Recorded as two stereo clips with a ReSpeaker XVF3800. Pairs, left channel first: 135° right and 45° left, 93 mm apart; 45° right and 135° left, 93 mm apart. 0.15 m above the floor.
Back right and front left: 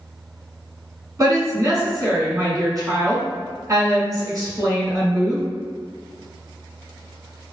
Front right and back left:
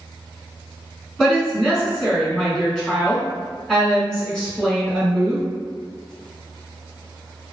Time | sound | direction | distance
1.2 | a woman speaking | 35° left | 1.9 m